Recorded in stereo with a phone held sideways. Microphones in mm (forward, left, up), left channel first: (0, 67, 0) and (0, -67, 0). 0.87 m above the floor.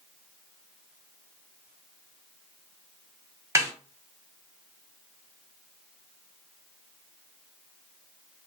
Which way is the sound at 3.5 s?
20° right (ahead or behind).